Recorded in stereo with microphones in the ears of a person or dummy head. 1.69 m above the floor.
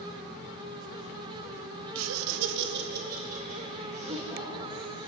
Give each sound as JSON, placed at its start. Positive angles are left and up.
{"t": 1.9, "sound": "laughter", "side_deg": -70, "distance_m": 0.6}